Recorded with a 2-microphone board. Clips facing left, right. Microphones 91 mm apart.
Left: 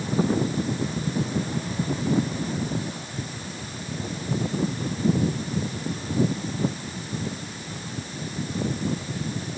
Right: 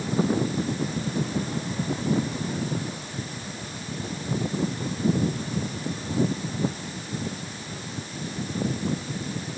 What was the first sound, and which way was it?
Only background noise.